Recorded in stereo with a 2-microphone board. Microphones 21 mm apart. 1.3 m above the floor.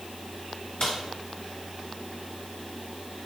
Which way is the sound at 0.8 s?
60° left (ahead or behind).